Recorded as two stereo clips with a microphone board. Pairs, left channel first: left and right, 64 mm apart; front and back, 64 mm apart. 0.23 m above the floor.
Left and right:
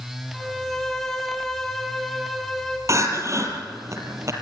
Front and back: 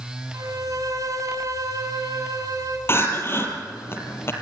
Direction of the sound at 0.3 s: 175° left.